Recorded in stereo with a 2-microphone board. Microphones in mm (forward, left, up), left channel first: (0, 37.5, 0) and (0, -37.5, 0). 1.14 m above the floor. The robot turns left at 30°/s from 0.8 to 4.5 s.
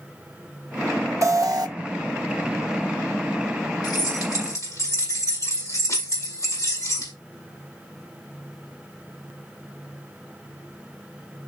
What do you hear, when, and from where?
1.2 s an alarm: 45° right (ahead or behind), 0.7 m; by 1.7 s 60° right (ahead or behind), 0.7 m
3.8 s keys jangling: 65° left (ahead or behind), 4.5 m; by 7.1 s 45° left (ahead or behind), 4.5 m